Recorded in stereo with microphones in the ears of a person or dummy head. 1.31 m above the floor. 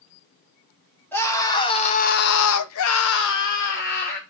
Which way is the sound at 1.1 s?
15° left (ahead or behind).